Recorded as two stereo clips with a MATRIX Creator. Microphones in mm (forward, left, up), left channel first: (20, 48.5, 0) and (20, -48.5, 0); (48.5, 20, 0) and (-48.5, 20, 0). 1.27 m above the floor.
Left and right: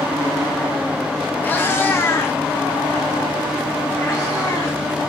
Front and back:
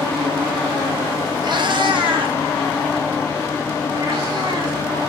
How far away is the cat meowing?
About 0.7 m.